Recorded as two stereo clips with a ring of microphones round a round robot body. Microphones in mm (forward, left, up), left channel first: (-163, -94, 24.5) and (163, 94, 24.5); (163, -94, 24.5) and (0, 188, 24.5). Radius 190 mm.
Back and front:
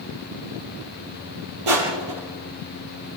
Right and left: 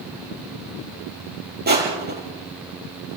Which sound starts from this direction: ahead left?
Crushing, at 1.7 s.